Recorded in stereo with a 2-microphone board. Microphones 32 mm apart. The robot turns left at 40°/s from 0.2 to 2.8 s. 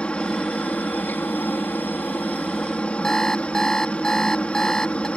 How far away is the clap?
No clap in this recording.